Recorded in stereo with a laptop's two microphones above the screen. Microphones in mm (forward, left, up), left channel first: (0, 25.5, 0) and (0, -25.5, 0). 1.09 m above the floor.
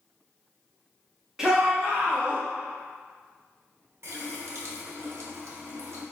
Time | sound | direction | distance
1.4 | a shout | 10° right (ahead or behind) | 1.0 m
4.0 | a running tap | 60° right (ahead or behind) | 0.8 m